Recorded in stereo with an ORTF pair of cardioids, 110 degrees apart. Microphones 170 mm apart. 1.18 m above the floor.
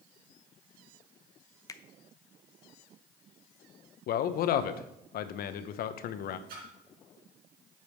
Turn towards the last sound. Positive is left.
turn(degrees=-65)